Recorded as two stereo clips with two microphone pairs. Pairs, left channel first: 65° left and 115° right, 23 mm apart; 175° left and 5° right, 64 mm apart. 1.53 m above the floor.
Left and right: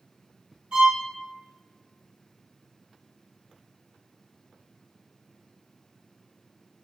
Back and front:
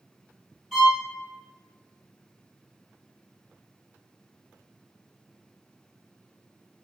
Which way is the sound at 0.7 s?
85° right.